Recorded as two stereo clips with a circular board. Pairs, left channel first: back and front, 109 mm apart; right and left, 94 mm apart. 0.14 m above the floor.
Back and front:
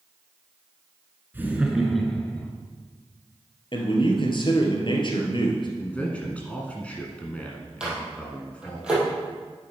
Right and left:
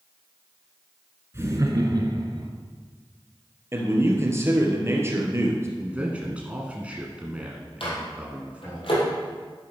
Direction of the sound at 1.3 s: 55° left.